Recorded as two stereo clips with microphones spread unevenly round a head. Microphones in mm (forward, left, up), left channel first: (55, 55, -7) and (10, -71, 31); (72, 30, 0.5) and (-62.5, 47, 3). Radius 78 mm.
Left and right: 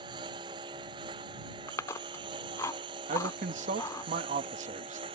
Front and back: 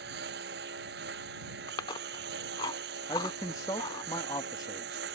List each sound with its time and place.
0.0 s a lawn mower: 170° right
1.7 s chewing: 5° right
3.1 s a man speaking: 75° right